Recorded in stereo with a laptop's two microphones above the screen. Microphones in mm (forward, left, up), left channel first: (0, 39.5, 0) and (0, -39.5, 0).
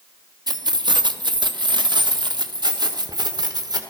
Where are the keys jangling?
60° right (ahead or behind), 0.9 m.